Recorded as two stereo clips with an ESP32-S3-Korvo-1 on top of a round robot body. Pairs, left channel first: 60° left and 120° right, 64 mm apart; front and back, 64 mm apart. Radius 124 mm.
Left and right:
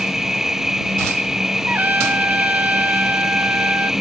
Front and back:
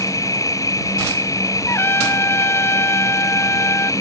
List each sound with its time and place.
0.0 s an insect: 35° right
1.7 s a trumpet: 55° right